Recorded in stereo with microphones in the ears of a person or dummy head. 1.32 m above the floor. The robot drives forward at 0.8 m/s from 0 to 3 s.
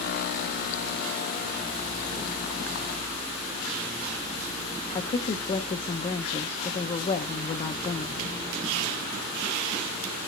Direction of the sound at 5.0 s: 30° left (ahead or behind).